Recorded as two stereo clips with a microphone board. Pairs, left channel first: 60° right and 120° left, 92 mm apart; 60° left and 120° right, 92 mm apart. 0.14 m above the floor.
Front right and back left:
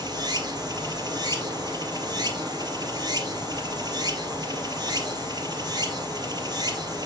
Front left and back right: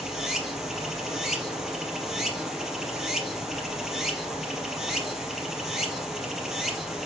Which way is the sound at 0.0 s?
155° left.